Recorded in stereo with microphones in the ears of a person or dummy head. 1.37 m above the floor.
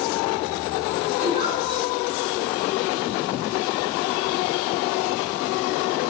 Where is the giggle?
30° right (ahead or behind), 6.5 m.